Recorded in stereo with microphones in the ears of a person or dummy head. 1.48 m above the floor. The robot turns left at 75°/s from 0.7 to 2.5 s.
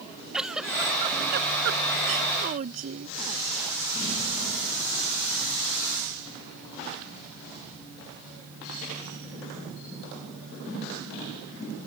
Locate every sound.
0.3 s a giggle: straight ahead; by 3.2 s 135° right